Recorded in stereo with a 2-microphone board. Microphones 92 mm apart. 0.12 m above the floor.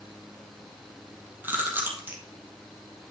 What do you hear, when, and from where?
1.4 s chewing: 20° right (ahead or behind), 2 m